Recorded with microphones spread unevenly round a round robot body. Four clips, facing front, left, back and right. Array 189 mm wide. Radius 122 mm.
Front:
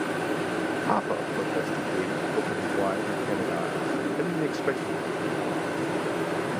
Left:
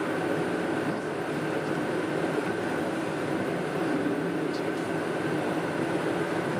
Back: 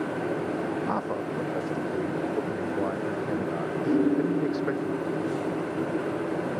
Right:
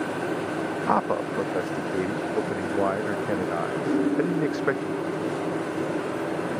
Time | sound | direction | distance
0.9 | a man speaking | 55° right | ?
3.8 | a piano | 165° right | ?